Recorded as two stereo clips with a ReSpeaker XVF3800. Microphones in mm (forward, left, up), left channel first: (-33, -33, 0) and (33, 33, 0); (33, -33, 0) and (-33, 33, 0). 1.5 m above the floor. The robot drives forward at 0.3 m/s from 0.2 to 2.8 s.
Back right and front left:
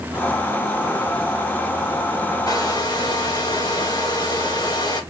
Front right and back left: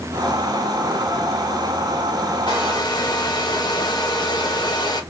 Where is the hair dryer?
85° right, 2 m; by 5.0 s 90° right, 2 m.